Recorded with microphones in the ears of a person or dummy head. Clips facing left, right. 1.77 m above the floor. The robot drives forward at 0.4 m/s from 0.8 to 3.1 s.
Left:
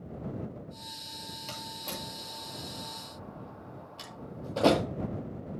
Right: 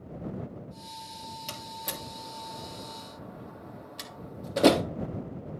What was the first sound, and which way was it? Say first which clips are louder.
A door slam: even; 15° right (ahead or behind).